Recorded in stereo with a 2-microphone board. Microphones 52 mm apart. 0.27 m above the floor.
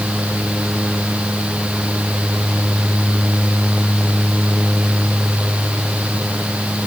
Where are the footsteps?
I don't hear footsteps.